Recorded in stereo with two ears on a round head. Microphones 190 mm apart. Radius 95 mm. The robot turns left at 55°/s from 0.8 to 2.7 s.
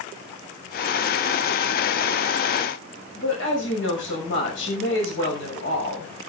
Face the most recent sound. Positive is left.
turn(degrees=60)  # may be behind; listen again after turning